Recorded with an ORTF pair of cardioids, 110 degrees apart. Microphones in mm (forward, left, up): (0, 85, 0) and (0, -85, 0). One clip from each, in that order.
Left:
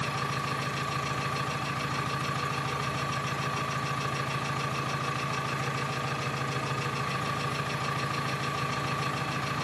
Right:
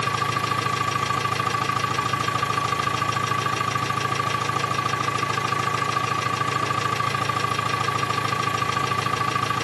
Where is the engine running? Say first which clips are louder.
Right 8 dB; 70° right, 2.5 m.